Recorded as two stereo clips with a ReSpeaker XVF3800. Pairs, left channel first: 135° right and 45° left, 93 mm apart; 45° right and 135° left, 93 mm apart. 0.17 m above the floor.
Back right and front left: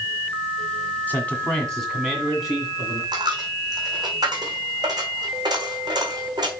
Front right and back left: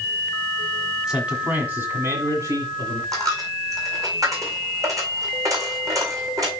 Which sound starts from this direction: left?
A dropped coin, at 3.1 s.